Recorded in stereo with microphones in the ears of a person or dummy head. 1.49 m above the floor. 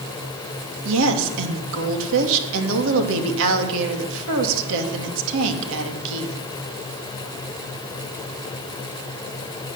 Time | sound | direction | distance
0.8 | a woman speaking | 75° right (ahead or behind) | 3 m